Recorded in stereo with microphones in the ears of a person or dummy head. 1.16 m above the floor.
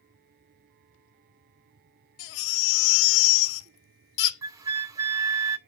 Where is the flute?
20° right (ahead or behind), 0.6 m.